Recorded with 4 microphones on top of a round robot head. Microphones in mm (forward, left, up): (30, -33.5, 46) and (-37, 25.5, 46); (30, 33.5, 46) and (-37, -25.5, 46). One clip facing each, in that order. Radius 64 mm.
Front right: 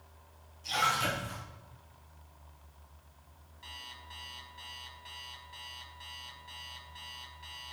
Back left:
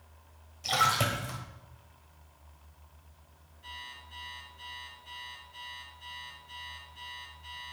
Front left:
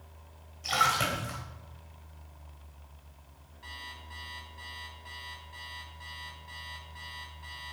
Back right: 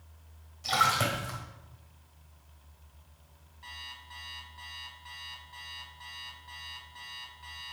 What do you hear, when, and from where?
0.6 s a splash: 140° left, 4 m
3.6 s an alarm clock: 50° right, 4.5 m